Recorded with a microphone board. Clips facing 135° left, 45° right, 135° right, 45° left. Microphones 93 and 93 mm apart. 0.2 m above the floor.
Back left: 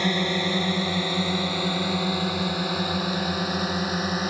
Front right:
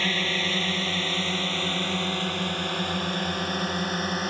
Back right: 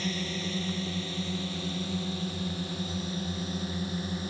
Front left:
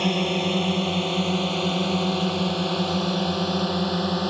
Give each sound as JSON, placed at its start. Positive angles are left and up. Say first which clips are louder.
{"t": 0.0, "sound": "a drone", "louder": "back left 4 dB, front left 11 dB", "azimuth_deg": 60}